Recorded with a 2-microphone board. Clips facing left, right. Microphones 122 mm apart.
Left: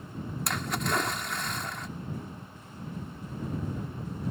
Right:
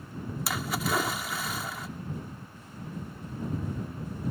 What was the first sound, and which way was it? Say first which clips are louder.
A splash: right 1 dB; 5° right (ahead or behind).